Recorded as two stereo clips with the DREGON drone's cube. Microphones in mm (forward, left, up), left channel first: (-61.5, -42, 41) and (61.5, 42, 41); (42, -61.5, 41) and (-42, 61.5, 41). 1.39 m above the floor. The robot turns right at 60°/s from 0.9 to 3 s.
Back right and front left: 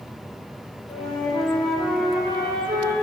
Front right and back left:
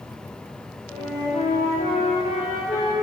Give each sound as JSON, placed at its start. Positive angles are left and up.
{"t": 0.9, "sound": "a flute", "azimuth_deg": -110, "distance_m": 1.9}